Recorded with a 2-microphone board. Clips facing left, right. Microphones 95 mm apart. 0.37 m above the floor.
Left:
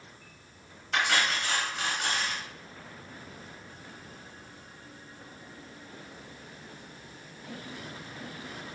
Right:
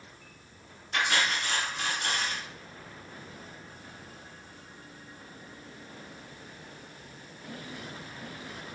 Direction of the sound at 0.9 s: 75° left (ahead or behind).